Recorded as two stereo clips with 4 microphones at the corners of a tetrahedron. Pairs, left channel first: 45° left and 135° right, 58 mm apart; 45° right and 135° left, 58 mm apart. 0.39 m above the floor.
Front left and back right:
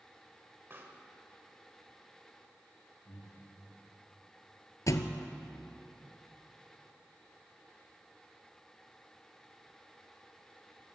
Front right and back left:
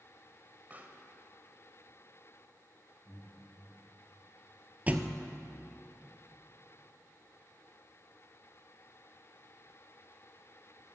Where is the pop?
175° right, 1.5 m.